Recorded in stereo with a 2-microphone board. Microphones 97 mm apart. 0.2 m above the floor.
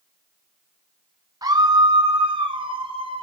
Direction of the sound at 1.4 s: 40° right (ahead or behind).